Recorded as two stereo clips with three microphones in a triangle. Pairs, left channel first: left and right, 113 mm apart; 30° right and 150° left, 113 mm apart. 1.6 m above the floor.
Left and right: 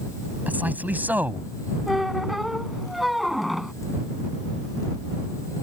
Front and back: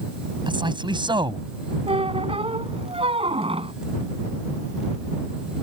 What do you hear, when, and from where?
0.5 s a man speaking: 165° right
1.9 s a squeak: straight behind